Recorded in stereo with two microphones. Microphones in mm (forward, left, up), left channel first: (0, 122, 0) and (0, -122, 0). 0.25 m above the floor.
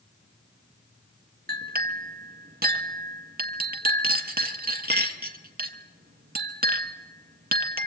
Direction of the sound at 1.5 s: 40° right (ahead or behind).